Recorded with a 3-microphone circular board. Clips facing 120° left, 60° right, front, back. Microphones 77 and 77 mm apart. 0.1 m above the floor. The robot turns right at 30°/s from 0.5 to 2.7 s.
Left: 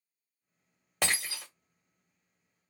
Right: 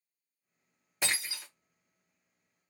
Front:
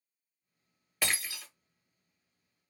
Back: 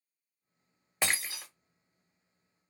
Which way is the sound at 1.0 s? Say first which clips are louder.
Left 3 dB, back 1 dB; 115° left.